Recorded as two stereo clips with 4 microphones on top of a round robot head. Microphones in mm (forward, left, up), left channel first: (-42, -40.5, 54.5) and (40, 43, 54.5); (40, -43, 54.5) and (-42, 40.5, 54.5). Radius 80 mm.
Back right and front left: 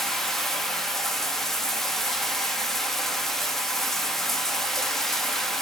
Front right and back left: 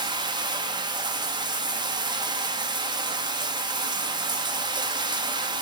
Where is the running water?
140° left, 0.9 m.